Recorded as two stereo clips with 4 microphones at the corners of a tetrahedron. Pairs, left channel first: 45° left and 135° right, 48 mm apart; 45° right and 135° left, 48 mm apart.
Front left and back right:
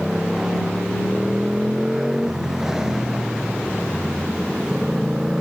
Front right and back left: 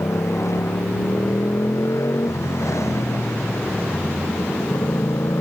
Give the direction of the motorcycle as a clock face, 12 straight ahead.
2 o'clock.